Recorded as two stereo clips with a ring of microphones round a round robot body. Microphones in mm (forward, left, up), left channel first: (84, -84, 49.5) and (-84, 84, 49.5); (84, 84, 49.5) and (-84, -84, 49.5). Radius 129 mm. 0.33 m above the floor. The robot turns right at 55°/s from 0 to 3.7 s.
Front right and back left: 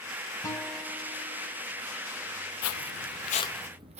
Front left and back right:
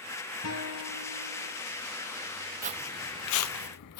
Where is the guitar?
30° left, 2.5 m; by 1.5 s 90° left, 2.5 m.